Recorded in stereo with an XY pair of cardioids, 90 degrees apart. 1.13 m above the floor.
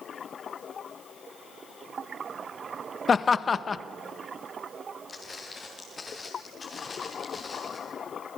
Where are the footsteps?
35° left, 4.5 m.